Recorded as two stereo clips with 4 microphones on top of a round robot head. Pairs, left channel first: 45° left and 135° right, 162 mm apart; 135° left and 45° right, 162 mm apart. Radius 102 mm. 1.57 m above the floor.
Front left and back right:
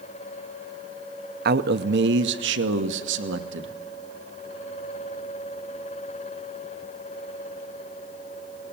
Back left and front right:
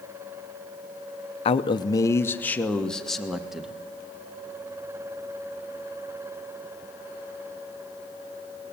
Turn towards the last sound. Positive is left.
turn(degrees=-130)